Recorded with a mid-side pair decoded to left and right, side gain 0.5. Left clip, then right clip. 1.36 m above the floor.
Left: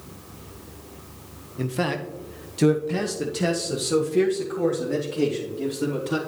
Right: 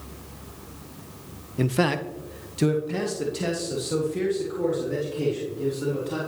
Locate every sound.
1.6 s a man speaking: 35° right, 0.7 m; by 6.2 s 35° left, 3.5 m